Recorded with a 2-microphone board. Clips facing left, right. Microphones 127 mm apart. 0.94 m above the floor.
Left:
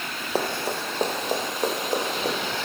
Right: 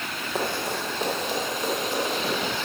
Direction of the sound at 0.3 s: 35° left (ahead or behind).